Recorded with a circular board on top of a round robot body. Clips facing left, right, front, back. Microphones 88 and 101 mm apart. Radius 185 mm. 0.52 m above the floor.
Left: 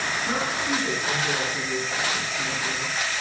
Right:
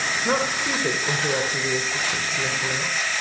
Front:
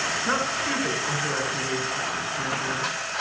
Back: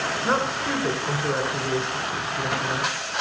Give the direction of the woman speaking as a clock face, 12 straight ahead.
4 o'clock.